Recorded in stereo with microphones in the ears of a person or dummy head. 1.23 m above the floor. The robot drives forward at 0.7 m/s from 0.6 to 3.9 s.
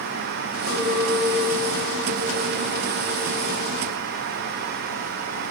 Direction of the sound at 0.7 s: 55° left (ahead or behind).